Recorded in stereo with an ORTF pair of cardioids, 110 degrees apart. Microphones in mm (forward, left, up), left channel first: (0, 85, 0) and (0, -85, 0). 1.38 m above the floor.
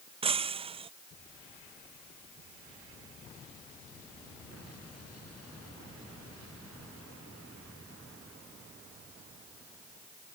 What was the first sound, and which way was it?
Breaking glass, 35° right.